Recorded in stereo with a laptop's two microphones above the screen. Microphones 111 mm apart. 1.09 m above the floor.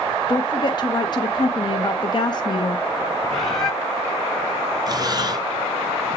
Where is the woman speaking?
40° left (ahead or behind), 1.0 m.